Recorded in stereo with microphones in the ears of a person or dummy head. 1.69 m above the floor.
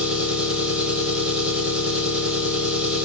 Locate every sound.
0.0 s an engine running: 5° right (ahead or behind), 1.7 m